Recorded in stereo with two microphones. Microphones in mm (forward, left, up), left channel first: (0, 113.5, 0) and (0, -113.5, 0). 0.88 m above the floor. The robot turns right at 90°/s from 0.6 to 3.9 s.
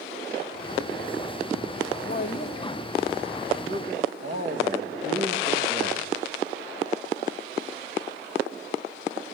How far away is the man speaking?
About 1.1 m.